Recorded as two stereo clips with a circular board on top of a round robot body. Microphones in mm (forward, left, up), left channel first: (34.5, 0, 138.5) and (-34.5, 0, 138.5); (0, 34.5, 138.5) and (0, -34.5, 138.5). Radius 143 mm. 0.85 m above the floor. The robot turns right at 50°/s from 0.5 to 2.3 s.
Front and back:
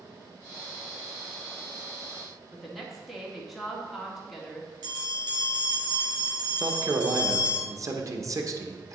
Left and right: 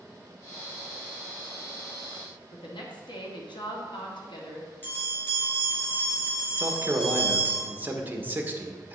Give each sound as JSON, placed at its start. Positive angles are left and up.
{"t": 2.5, "sound": "a woman speaking", "azimuth_deg": 90, "distance_m": 2.0}
{"t": 4.8, "sound": "a bell", "azimuth_deg": 155, "distance_m": 3.0}
{"t": 6.6, "sound": "a man speaking", "azimuth_deg": -150, "distance_m": 1.4}